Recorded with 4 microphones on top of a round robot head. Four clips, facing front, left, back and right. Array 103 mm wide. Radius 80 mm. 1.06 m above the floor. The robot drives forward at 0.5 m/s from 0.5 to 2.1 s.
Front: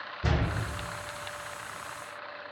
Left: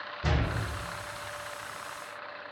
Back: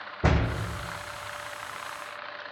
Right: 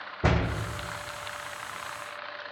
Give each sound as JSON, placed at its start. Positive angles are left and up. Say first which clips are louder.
{"t": 0.2, "sound": "a door slam", "louder": "right 5 dB, back 5 dB", "azimuth_deg": -140, "distance_m": 0.6}